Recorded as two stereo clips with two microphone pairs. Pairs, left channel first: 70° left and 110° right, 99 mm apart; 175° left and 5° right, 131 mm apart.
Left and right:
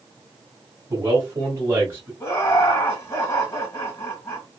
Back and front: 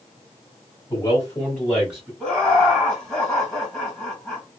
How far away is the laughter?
About 1.9 m.